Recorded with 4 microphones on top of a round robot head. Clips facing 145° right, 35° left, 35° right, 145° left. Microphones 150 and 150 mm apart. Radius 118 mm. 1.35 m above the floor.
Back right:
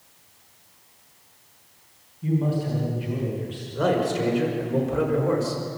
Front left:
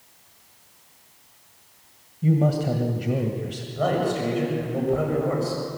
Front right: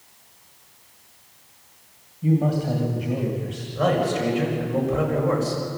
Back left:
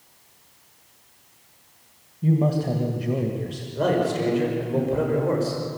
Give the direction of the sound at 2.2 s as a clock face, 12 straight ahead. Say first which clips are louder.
Front left 3 dB, even; 9 o'clock.